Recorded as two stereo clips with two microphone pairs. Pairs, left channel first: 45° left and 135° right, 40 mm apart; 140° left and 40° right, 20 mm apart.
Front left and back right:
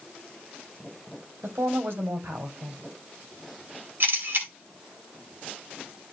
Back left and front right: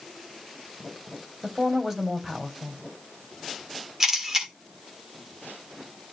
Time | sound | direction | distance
1.4 | a woman speaking | 115° right | 3 m
4.0 | a camera shutter | 110° right | 3 m